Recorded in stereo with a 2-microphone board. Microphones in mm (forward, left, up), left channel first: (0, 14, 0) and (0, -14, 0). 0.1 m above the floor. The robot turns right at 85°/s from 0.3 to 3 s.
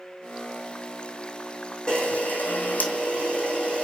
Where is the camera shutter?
40° left, 3.5 m; by 3.8 s 135° left, 3.5 m.